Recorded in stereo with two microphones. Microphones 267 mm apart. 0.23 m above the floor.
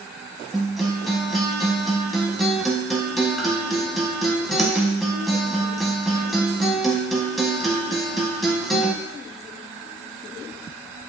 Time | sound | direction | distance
0.5 | a guitar | centre (ahead or behind) | 0.8 m